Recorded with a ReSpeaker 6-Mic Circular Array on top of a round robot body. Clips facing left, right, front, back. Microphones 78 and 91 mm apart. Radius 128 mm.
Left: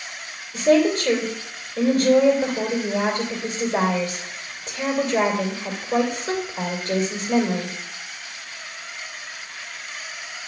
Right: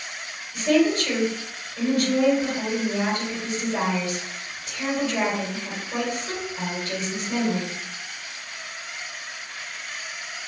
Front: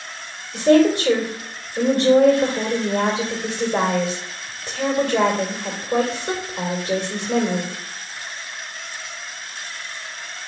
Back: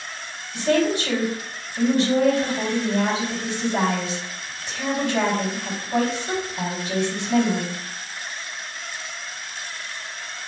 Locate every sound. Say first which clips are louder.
0.5 s a woman speaking: left 3 dB, front 6 dB; 40° left, 2.5 m